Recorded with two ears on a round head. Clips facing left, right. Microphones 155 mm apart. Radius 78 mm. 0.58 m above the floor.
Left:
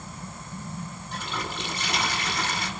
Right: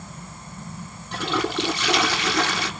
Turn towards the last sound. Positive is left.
turn(degrees=-55)  # may be behind; listen again after turning